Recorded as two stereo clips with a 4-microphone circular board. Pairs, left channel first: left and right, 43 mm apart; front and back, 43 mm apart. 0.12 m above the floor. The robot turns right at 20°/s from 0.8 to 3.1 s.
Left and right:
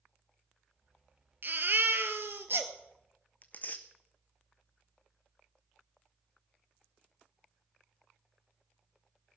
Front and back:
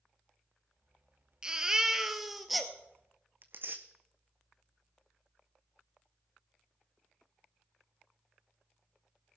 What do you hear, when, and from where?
1.4 s a baby crying: 115° right, 1.3 m; by 2.7 s 90° right, 1.3 m
3.4 s tearing paper: 140° left, 1.2 m